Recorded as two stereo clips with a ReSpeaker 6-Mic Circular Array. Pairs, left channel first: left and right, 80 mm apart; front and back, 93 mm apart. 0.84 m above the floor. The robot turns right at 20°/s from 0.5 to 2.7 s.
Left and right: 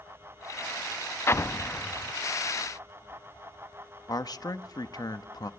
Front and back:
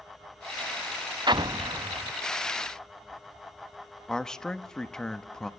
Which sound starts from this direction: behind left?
An explosion, at 1.3 s.